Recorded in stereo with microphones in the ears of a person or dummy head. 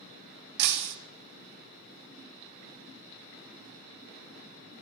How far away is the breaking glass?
About 0.6 m.